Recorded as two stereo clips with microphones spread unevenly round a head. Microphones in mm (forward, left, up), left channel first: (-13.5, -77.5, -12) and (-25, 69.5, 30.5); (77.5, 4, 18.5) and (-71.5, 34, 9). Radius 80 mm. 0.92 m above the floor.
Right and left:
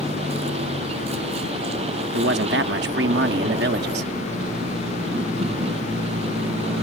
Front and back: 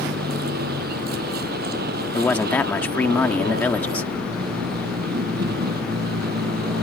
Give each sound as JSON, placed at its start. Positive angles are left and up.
{"t": 0.0, "sound": "a vehicle", "azimuth_deg": 145}
{"t": 2.1, "sound": "a man speaking", "azimuth_deg": 65}